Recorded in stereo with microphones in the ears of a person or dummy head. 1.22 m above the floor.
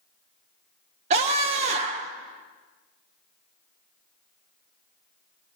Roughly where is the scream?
Right.